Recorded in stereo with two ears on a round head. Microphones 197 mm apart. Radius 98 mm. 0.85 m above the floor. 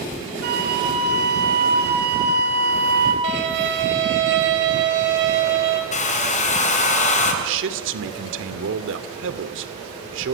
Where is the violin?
55° right (ahead or behind), 3.5 m.